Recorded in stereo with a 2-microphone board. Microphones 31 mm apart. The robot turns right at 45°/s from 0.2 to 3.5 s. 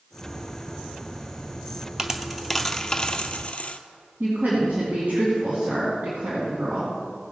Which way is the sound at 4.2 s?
60° right (ahead or behind).